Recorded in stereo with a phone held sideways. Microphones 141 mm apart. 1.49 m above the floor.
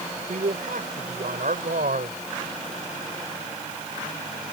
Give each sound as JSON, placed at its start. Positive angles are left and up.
{"t": 0.3, "sound": "a man speaking", "side_deg": -80}